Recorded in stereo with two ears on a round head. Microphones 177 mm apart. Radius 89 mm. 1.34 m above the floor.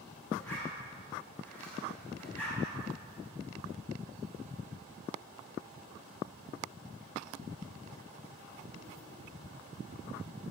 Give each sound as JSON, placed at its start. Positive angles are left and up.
{"t": 0.4, "sound": "a zipper", "side_deg": 10, "distance_m": 7.5}